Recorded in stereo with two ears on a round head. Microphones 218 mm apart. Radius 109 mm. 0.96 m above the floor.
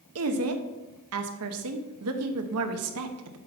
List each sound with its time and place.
0.1 s a woman speaking: 65° right (ahead or behind), 0.8 m